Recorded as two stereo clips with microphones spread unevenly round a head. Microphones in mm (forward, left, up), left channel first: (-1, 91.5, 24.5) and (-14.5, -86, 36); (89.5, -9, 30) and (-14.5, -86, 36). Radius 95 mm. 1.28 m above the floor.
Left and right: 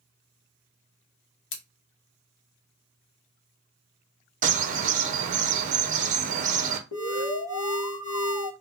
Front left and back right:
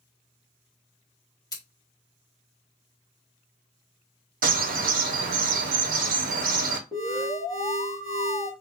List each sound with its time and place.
1.5 s scissors: 105° left, 0.8 m
4.4 s a bird: 145° right, 0.6 m
6.9 s an alarm: 100° left, 1.0 m